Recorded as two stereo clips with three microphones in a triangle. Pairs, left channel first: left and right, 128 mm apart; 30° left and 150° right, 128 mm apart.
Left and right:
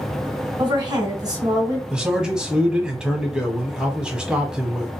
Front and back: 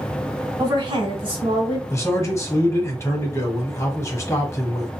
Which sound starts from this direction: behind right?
A woman speaking, at 0.6 s.